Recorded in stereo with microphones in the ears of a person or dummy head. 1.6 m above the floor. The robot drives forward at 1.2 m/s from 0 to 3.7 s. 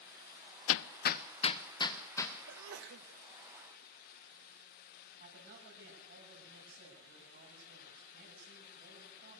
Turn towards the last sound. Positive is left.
turn(degrees=-60)  # may be behind; listen again after turning